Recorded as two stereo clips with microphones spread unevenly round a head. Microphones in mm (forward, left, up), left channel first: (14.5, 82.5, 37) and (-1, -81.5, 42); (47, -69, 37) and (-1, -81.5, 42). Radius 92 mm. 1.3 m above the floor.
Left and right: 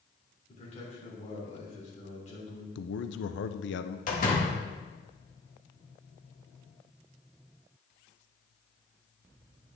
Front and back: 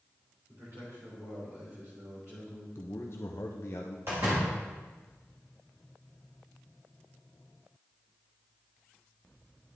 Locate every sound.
0.5 s a man speaking: 135° left, 3.5 m
2.8 s a man speaking: 70° left, 0.6 m
4.1 s a door slam: 125° left, 1.9 m